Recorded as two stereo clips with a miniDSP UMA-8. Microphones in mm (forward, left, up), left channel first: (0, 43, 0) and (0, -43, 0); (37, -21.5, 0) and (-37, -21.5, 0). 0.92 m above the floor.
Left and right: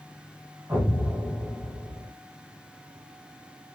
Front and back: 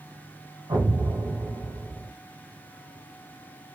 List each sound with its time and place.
0.7 s an explosion: 150° right, 1.7 m